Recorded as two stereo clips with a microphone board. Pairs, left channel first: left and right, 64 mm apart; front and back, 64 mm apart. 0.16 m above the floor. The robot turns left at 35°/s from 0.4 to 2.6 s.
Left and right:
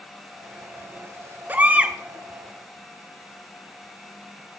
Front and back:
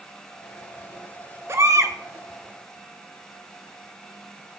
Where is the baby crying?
145° right, 1.1 m; by 2.0 s 165° right, 1.1 m.